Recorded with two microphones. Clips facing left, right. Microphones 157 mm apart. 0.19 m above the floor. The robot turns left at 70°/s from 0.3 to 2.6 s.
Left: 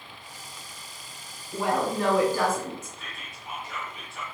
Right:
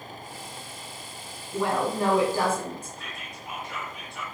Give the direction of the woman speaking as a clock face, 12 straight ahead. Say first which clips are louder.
Even; 11 o'clock.